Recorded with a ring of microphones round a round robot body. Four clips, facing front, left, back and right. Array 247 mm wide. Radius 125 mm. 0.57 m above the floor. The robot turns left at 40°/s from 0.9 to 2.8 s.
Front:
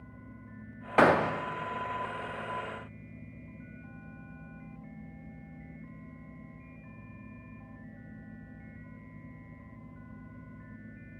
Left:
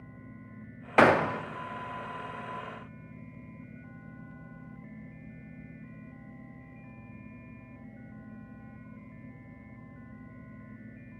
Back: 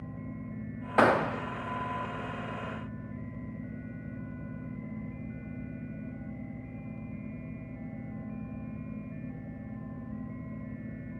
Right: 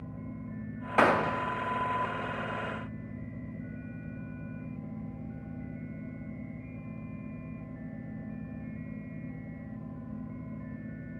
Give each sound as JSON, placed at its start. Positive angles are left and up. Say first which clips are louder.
{"t": 1.0, "sound": "a gunshot", "louder": "left 3 dB, front 1 dB", "azimuth_deg": 70, "distance_m": 0.7}